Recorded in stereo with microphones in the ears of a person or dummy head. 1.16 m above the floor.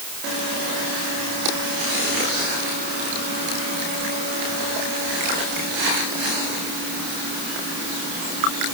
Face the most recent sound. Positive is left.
No sound to turn to.